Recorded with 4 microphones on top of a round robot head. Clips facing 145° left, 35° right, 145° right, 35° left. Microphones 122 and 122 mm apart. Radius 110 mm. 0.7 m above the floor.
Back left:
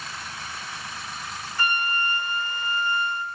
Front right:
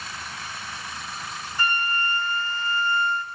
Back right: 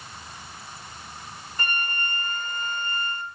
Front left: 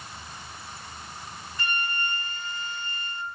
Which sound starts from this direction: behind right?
A flute, at 1.6 s.